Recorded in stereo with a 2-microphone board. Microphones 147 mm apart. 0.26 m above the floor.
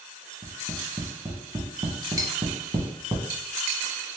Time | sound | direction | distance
0.4 | tapping | 35° right (ahead or behind) | 0.9 m
2.2 | cutlery clinking | 25° right (ahead or behind) | 0.8 m